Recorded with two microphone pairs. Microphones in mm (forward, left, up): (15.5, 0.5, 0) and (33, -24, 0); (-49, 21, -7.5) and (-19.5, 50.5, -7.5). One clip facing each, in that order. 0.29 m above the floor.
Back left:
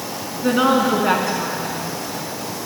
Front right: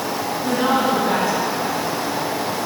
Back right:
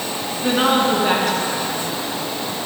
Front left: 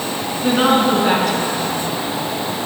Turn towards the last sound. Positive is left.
turn(degrees=135)